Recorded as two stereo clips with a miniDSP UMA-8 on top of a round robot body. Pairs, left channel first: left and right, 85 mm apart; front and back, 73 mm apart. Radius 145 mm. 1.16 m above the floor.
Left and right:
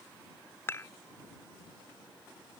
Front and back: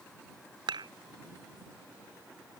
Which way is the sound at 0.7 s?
155° left.